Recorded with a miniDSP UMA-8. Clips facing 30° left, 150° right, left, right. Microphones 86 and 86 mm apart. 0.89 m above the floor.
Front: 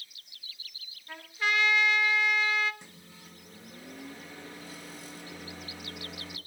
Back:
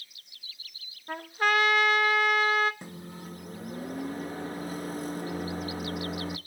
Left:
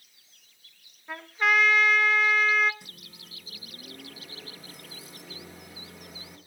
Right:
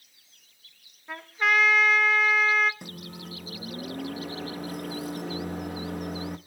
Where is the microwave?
105° right, 1.0 m.